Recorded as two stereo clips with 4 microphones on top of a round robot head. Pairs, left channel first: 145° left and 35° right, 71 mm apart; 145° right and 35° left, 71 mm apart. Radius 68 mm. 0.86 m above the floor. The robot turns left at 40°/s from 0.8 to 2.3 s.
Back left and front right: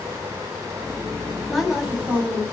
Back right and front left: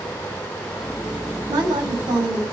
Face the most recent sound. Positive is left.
turn(degrees=30)